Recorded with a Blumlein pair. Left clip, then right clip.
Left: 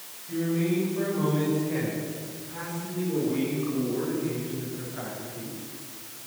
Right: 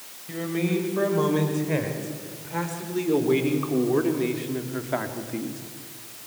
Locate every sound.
0.3 s a man speaking: 65° right, 6.5 m; by 5.6 s 40° right, 2.5 m